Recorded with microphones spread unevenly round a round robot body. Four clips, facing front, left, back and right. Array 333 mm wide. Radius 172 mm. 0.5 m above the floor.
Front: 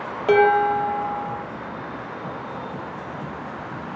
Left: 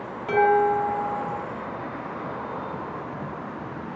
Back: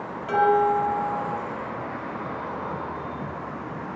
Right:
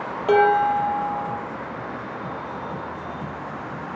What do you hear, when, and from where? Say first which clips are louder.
0.3 s dishes clattering: right 2 dB, front 3 dB; 25° right, 8.5 m